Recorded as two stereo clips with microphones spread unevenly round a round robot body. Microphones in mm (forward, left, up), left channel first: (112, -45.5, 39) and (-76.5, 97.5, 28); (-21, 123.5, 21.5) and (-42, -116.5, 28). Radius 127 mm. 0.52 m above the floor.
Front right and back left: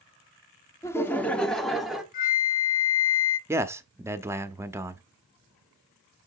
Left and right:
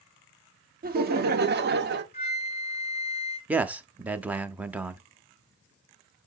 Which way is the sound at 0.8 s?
110° right.